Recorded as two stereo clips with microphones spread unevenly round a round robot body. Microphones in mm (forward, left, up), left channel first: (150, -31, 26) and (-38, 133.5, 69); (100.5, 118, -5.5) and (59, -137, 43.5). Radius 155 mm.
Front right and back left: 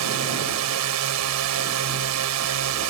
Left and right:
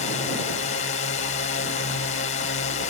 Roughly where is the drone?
Behind left.